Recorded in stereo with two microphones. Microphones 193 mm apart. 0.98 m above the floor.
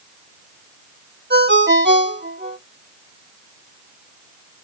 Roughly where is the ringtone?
Right.